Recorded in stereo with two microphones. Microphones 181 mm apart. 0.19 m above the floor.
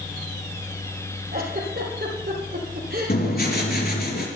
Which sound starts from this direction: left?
Writing, at 3.1 s.